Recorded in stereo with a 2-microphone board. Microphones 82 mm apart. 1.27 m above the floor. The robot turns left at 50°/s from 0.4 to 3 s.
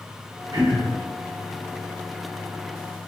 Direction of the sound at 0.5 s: 70° right (ahead or behind).